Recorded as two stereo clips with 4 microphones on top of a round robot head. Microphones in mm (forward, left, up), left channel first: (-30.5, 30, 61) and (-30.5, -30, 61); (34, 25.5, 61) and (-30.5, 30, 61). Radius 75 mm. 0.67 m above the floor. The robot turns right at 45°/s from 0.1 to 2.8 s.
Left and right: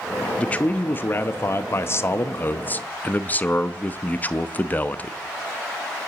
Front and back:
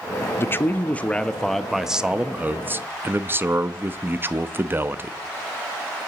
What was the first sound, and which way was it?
A man speaking, 25° left.